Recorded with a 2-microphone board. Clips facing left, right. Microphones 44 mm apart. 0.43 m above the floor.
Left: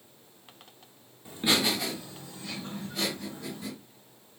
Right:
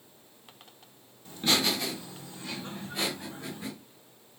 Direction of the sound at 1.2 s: 20° left (ahead or behind).